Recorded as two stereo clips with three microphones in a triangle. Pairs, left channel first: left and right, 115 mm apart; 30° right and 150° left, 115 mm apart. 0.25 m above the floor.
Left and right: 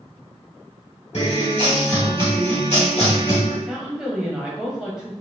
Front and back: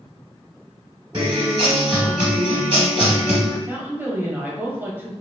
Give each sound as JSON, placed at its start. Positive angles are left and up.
{"t": 1.1, "sound": "a guitar", "azimuth_deg": 105, "distance_m": 2.0}
{"t": 3.7, "sound": "a woman speaking", "azimuth_deg": -165, "distance_m": 1.0}